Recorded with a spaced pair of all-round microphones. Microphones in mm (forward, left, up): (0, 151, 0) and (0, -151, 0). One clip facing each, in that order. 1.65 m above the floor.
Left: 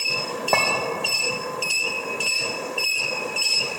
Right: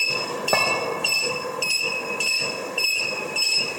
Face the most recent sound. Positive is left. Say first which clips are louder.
# left 1 dB
turn(degrees=-5)  # may be behind; listen again after turning